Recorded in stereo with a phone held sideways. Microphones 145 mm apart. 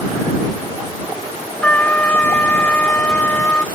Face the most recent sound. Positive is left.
turn(degrees=10)  # may be behind; listen again after turning